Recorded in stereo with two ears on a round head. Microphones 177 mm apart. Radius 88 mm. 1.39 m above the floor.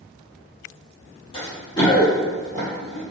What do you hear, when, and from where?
1.3 s running footsteps: 30° left (ahead or behind), 1.5 m; by 3.0 s 5° left (ahead or behind), 2.5 m